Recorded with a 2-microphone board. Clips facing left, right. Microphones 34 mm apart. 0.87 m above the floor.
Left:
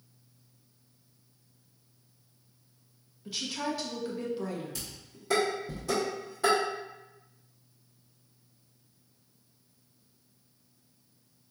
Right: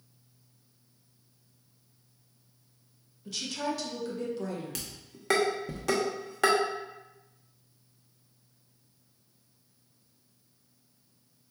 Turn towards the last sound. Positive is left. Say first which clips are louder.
# right 1 dB
turn(degrees=-75)  # may be behind; listen again after turning